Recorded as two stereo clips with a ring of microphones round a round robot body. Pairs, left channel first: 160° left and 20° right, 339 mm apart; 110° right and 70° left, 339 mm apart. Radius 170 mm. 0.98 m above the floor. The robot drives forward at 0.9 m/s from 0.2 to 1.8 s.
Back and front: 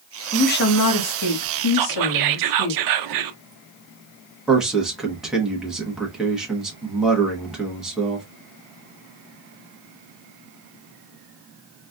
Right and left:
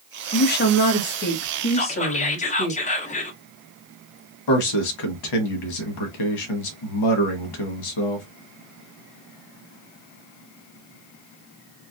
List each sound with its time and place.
0.3 s a woman speaking: 145° right, 0.6 m; by 2.7 s 175° right, 1.7 m
1.7 s whispering: 40° right, 0.8 m; by 3.4 s 45° right, 0.8 m
4.5 s a man speaking: 110° right, 1.3 m